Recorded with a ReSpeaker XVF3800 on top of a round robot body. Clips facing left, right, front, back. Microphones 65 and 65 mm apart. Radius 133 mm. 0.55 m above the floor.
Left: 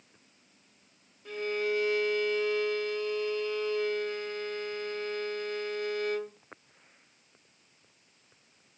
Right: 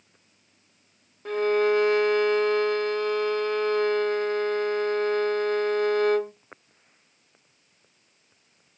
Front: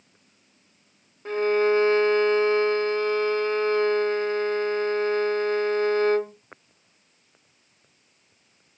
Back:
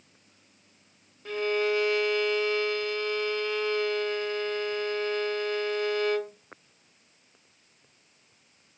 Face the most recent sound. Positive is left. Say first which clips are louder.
# right 9 dB, front 6 dB
turn(degrees=-55)